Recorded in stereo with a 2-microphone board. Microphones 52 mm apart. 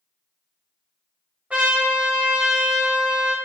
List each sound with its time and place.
1.5 s a trumpet: 25° right (ahead or behind), 1.2 m